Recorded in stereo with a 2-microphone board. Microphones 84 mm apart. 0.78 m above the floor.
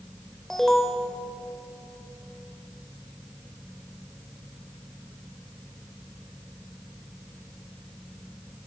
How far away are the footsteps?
I don't hear footsteps.